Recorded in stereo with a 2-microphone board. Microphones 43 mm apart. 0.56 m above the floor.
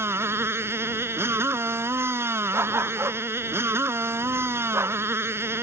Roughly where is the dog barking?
Right.